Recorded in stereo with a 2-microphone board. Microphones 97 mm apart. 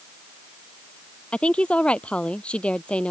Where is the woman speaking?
10° left (ahead or behind).